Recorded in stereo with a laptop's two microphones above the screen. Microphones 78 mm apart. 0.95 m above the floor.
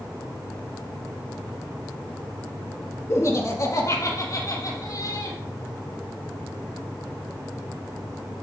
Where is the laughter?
35° left (ahead or behind), 1.7 m; by 5.4 s 55° left (ahead or behind), 4 m.